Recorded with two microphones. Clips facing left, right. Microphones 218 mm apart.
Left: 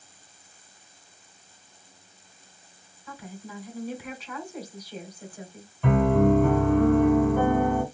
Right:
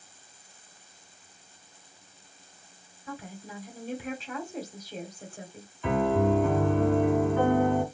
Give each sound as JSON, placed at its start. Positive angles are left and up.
{"t": 3.1, "sound": "a woman speaking", "side_deg": -25, "distance_m": 1.5}
{"t": 5.8, "sound": "a piano", "side_deg": 55, "distance_m": 2.0}